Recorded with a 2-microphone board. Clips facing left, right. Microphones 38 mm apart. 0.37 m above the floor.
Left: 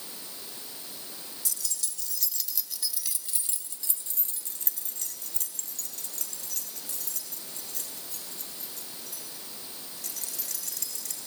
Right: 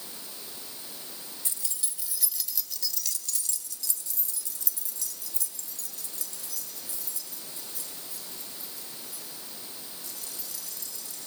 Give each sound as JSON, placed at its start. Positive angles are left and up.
{"t": 1.4, "sound": "keys jangling", "side_deg": -30, "distance_m": 1.4}